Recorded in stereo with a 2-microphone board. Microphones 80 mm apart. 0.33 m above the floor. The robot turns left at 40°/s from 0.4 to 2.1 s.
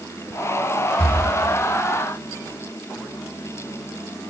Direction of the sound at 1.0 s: 10° left (ahead or behind).